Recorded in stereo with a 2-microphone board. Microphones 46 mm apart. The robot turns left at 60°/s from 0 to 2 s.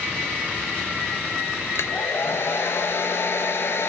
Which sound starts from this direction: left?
A hair dryer, at 1.8 s.